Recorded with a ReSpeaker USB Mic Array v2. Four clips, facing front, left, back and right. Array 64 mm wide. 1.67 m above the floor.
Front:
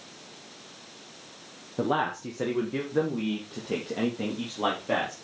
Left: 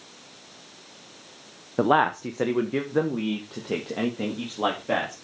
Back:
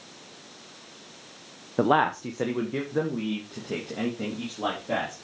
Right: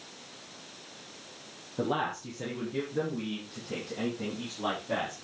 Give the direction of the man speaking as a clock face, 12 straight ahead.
8 o'clock.